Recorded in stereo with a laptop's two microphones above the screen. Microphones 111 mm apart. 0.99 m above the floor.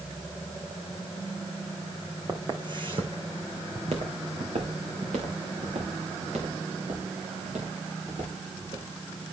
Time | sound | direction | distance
2.3 | footsteps | 30° right (ahead or behind) | 2.5 m